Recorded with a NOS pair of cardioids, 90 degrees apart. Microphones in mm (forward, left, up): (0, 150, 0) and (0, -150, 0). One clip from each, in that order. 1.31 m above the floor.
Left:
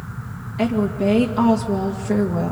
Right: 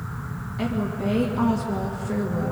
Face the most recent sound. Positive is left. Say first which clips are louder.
# left 7 dB
turn(degrees=35)